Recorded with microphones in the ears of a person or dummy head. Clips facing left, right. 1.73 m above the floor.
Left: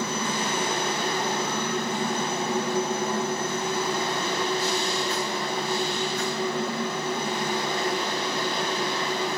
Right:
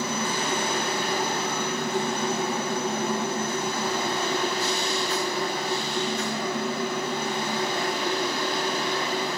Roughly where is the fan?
Centre.